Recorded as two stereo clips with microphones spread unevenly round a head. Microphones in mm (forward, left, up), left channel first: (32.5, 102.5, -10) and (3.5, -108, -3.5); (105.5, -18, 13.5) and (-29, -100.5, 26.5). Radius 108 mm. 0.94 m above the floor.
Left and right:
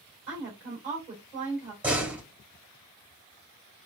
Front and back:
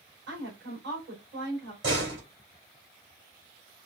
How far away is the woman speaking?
About 4 m.